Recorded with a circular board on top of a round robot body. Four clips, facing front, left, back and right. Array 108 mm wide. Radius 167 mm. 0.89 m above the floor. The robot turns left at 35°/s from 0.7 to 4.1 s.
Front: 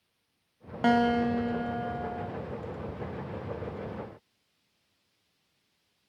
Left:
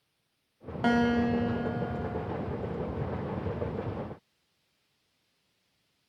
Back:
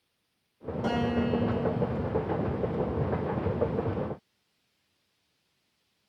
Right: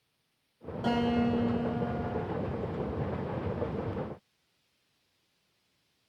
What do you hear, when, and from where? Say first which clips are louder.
0.8 s a guitar: left 2 dB, front 4 dB; 35° left, 1.3 m; by 2.3 s 15° right, 1.3 m